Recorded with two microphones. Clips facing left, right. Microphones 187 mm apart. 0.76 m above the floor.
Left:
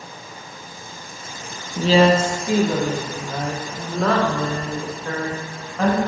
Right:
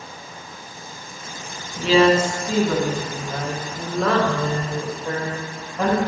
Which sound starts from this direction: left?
A woman speaking, at 1.8 s.